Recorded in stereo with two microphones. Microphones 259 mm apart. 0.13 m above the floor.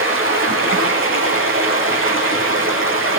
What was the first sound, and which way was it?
Running water, 50° right (ahead or behind).